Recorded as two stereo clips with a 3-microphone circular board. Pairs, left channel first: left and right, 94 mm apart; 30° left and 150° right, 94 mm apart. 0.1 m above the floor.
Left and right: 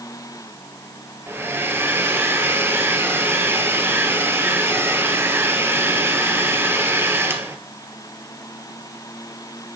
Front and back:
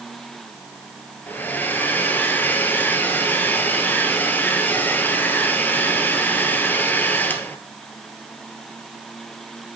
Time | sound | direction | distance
1.3 | a hair dryer | 35° right | 1.6 m